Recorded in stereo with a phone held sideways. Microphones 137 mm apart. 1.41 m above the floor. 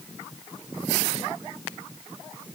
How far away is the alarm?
I don't hear an alarm.